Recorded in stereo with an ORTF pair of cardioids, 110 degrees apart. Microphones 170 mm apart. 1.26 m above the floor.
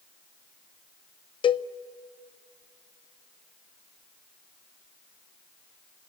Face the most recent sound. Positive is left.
turn(degrees=30)